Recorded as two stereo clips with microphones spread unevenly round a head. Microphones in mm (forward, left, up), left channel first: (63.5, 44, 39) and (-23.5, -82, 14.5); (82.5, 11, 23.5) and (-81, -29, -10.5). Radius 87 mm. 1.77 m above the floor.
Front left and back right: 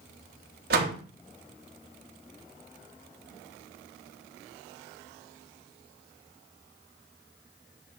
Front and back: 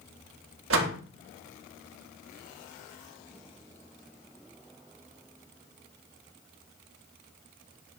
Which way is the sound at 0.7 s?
160° right.